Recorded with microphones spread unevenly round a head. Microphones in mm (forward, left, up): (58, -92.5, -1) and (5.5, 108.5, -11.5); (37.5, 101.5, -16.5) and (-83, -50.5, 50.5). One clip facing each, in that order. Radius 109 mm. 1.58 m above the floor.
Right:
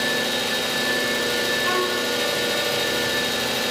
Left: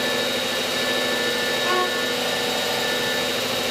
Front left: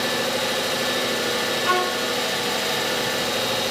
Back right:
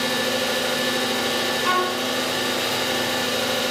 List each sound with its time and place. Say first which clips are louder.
0.0 s an engine running: left 1 dB, back right 1 dB; 60° right, 0.8 m
1.6 s a violin: even, even; 155° right, 0.5 m